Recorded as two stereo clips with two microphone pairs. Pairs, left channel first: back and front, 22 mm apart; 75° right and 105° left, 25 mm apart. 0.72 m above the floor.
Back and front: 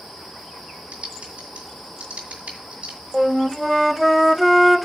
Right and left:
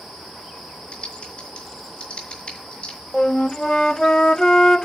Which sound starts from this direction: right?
A flute, at 3.1 s.